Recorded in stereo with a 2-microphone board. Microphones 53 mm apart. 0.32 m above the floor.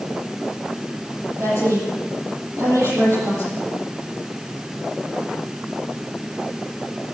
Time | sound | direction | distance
1.4 | a woman speaking | 60° right (ahead or behind) | 8.5 m